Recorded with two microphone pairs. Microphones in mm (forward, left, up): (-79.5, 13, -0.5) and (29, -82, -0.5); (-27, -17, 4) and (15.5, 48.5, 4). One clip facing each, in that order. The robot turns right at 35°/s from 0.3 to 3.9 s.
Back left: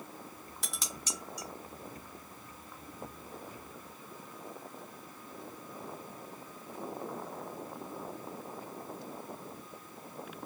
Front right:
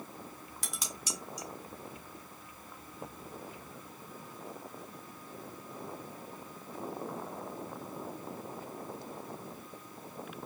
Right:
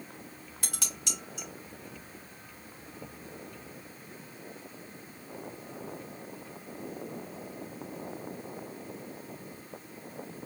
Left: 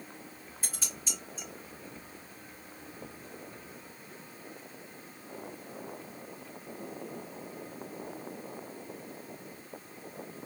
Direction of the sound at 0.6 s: 135° right.